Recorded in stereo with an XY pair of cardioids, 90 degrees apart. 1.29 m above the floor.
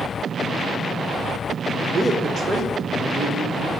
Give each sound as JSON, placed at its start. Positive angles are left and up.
{"t": 1.8, "sound": "a man speaking", "azimuth_deg": -35, "distance_m": 1.6}